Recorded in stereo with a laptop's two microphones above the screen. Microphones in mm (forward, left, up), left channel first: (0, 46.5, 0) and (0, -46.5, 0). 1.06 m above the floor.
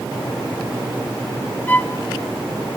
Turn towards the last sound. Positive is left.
turn(degrees=20)  # may be behind; listen again after turning